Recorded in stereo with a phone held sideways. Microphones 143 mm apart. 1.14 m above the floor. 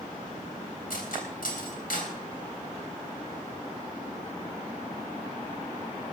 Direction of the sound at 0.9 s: 80° left.